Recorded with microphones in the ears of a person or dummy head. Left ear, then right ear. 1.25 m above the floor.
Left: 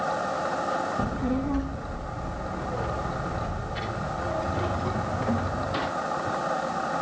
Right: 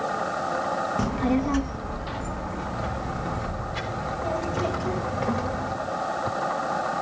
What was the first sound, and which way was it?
A child speaking, 60° right (ahead or behind).